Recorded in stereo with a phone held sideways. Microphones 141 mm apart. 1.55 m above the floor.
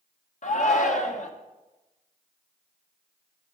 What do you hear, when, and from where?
0.4 s a shout: 60° left (ahead or behind), 1.1 m